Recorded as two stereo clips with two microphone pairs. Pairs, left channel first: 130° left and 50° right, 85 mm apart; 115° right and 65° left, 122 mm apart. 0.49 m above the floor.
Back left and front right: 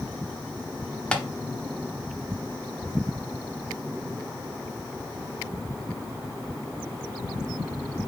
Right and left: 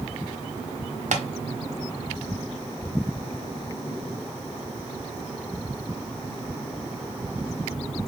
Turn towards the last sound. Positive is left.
turn(degrees=50)